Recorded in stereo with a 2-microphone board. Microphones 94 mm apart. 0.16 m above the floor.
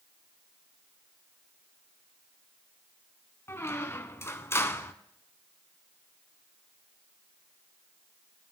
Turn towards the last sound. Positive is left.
turn(degrees=30)  # may be behind; listen again after turning